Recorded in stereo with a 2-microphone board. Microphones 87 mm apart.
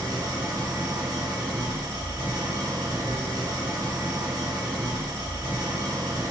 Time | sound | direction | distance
0.0 | an engine running | 50° right (ahead or behind) | 1.2 m